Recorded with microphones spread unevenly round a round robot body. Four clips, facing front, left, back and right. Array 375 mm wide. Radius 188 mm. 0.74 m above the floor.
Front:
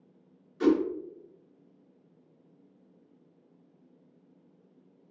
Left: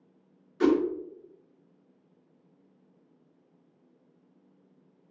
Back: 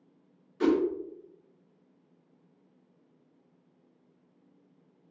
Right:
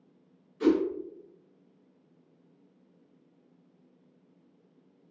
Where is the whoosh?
95° left, 0.7 m.